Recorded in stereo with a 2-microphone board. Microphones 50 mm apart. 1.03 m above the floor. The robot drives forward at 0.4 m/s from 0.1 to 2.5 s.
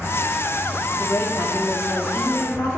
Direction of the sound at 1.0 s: 65° left (ahead or behind).